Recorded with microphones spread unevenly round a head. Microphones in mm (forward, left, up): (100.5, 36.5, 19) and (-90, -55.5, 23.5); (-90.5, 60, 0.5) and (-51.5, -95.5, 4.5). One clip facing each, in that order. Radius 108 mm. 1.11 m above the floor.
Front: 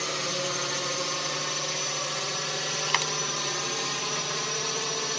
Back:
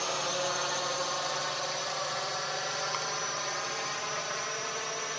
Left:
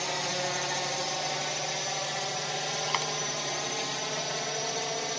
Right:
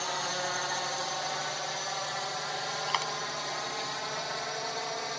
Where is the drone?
45° left; by 5.2 s 40° left.